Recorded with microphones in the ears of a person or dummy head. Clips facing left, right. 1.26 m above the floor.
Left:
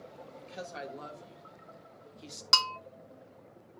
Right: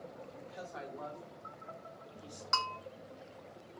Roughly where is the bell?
Left.